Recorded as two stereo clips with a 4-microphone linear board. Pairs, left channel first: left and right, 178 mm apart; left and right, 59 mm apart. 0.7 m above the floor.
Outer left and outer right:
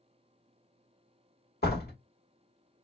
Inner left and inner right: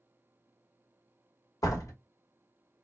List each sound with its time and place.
1.6 s a door slam: 65° left (ahead or behind), 1.0 m